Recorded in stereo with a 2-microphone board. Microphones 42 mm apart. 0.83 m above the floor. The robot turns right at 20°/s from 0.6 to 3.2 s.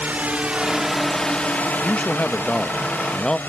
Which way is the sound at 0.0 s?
40° right (ahead or behind).